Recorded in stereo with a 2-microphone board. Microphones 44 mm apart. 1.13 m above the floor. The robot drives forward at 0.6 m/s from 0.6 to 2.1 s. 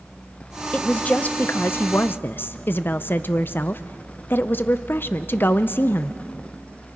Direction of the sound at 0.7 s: 25° left (ahead or behind).